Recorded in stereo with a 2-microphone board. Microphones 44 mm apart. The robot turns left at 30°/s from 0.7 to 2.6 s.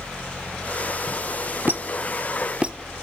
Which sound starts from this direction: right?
A squeak, at 1.7 s.